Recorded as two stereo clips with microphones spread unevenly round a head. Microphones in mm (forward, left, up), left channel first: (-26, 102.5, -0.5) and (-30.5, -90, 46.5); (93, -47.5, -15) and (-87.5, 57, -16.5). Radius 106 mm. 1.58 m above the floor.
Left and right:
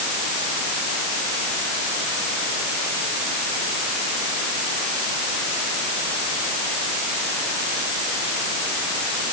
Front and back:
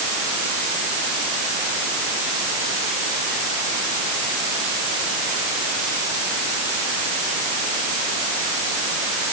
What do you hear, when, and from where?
Only background noise.